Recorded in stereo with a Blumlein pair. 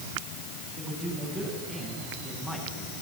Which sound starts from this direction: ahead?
A man speaking, at 0.8 s.